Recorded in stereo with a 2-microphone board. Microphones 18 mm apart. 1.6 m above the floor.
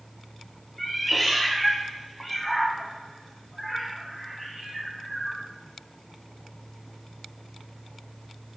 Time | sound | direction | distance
0.8 | a cat meowing | 5° left (ahead or behind) | 1.4 m